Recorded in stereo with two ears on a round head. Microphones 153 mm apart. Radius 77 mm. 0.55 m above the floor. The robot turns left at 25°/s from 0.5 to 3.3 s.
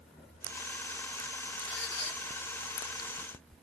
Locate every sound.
1.7 s a squeak: 80° left, 1.3 m; by 2.2 s 70° left (ahead or behind), 1.3 m